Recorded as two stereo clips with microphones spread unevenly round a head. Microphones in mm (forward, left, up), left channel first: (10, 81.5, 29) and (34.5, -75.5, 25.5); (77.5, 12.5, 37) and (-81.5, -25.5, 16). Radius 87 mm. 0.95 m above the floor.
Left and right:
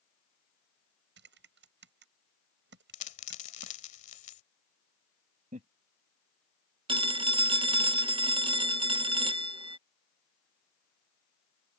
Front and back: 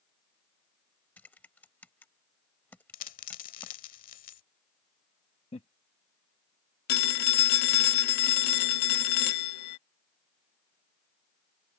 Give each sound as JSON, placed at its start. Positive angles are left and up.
{"t": 1.2, "sound": "typing on a keyboard", "azimuth_deg": -65}
{"t": 2.9, "sound": "a dropped coin", "azimuth_deg": 55}
{"t": 5.5, "sound": "laughter", "azimuth_deg": -45}
{"t": 6.9, "sound": "a phone ringing", "azimuth_deg": -20}